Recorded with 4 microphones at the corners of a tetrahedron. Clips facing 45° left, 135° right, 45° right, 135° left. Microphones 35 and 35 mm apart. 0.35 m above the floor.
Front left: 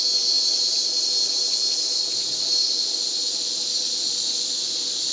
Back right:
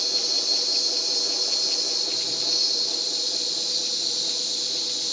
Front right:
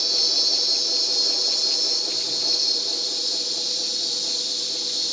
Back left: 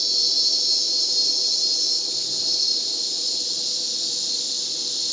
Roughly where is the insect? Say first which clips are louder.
Front left 3 dB, even; ahead left.